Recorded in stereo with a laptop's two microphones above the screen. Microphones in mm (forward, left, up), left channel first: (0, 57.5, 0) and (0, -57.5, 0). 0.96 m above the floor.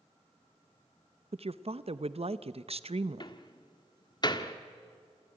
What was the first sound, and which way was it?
A woman speaking, 60° right (ahead or behind).